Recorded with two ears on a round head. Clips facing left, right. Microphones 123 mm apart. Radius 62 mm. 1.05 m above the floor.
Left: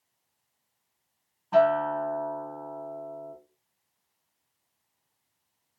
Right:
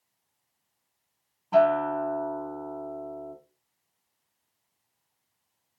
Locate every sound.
1.5 s a guitar: 10° right (ahead or behind), 1.4 m